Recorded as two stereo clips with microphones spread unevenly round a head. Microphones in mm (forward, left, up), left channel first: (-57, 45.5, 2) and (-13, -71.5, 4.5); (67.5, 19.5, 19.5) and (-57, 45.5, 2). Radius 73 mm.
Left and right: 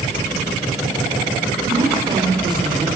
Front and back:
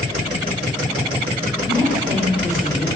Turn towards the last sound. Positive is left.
turn(degrees=-125)